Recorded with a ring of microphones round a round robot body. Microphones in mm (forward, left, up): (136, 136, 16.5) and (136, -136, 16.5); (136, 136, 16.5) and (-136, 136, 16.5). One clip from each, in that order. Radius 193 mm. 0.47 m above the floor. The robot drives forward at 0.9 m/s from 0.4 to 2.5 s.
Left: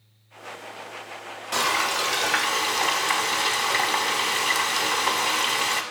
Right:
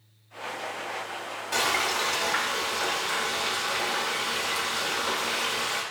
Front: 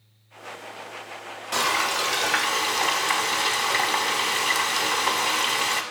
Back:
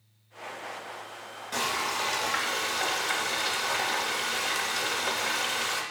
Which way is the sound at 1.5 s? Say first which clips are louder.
Left 2 dB, front 6 dB; 30° left.